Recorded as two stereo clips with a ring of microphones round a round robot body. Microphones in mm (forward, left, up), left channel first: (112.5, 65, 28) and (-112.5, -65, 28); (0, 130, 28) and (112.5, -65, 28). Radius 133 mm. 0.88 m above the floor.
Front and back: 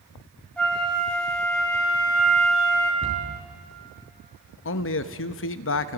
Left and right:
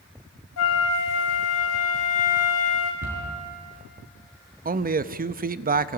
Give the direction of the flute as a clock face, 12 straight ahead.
8 o'clock.